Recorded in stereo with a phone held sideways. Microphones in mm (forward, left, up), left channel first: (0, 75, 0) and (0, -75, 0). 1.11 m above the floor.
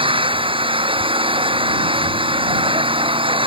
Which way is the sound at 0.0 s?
35° right (ahead or behind).